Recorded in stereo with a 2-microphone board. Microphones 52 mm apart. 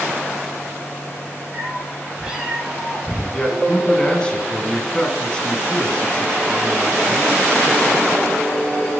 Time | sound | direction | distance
1.5 | a cat meowing | 25° right (ahead or behind) | 3 m
3.3 | a man speaking | 20° left (ahead or behind) | 2 m